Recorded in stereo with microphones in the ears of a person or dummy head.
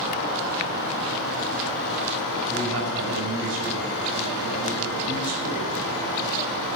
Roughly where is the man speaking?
Right.